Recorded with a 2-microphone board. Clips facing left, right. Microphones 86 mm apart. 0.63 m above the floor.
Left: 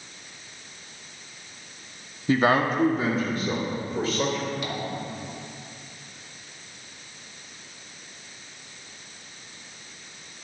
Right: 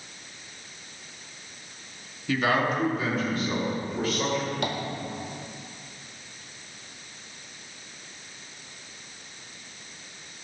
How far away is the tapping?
About 1.5 m.